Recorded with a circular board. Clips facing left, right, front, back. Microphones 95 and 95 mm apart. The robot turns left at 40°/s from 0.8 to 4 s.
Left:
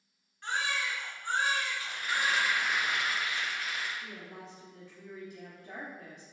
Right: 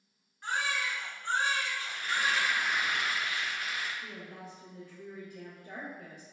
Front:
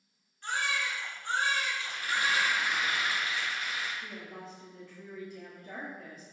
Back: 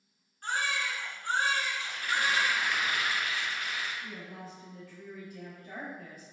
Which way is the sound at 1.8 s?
40° left.